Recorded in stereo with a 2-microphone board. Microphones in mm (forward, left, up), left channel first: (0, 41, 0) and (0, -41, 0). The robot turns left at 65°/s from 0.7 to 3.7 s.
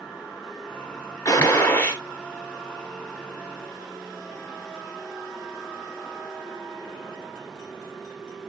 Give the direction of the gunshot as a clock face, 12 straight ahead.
10 o'clock.